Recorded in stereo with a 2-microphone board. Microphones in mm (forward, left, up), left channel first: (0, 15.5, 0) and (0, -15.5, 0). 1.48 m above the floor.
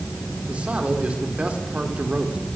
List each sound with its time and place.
0.5 s a man speaking: 45° right (ahead or behind), 4 m